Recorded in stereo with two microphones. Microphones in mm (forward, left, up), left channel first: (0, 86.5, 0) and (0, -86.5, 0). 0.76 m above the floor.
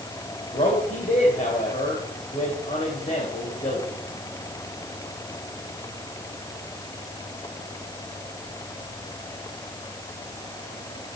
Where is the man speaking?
45° left (ahead or behind), 3.5 m.